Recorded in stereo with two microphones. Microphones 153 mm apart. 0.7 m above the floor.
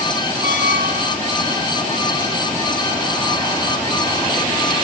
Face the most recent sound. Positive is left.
turn(degrees=60)  # may be behind; listen again after turning